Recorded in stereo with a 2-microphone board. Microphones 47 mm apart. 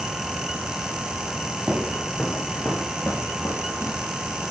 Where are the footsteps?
15° right (ahead or behind), 1.7 m; by 4.1 s 65° left (ahead or behind), 3.5 m.